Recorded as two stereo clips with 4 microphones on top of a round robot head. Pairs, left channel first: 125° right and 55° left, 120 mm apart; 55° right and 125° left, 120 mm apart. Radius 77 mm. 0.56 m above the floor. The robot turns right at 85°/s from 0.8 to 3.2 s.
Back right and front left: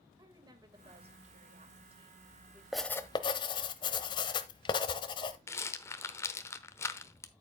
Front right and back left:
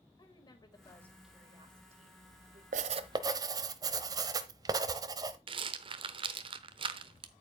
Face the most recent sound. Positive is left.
turn(degrees=170)